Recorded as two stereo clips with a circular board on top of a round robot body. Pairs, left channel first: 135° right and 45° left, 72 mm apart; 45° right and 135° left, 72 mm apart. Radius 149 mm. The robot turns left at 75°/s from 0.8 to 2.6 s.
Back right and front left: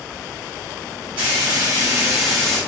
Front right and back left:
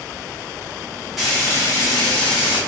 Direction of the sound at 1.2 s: 50° left.